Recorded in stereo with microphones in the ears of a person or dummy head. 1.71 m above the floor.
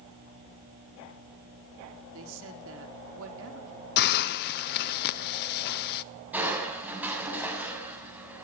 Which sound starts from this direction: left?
A hiss, at 4.0 s.